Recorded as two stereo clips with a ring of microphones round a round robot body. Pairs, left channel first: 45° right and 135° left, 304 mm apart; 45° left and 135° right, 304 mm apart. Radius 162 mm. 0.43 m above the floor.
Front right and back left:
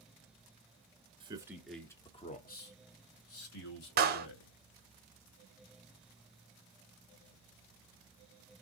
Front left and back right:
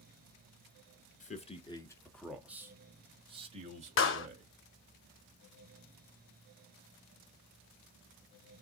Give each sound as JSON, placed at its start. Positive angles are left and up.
{"t": 1.2, "sound": "a man speaking", "azimuth_deg": 80, "distance_m": 1.1}
{"t": 4.0, "sound": "a clap", "azimuth_deg": 85, "distance_m": 1.0}